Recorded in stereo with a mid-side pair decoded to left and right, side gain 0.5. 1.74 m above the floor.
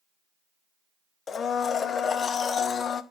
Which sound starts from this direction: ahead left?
A blender, at 1.3 s.